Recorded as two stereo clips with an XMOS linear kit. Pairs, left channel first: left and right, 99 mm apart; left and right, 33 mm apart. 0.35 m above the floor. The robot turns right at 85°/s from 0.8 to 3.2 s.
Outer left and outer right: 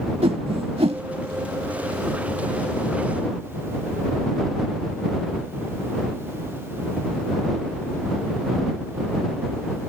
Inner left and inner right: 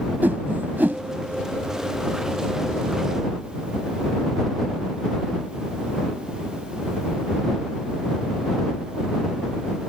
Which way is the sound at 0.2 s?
70° right (ahead or behind).